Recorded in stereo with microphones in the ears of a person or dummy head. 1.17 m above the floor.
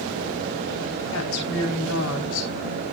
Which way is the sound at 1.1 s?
70° left (ahead or behind).